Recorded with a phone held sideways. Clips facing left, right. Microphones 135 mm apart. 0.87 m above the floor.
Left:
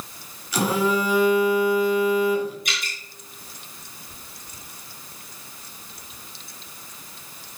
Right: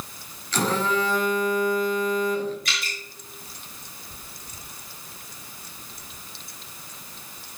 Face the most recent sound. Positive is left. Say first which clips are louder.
# even
turn(degrees=20)  # may be behind; listen again after turning